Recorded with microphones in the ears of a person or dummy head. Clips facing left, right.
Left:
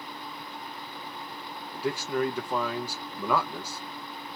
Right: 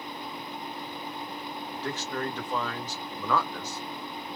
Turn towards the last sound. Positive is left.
turn(degrees=10)  # may be behind; listen again after turning